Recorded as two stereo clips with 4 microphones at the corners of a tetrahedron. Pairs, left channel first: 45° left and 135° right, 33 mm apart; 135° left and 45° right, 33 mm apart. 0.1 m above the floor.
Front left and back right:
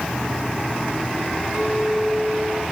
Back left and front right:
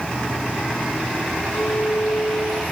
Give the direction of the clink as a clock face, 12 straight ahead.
7 o'clock.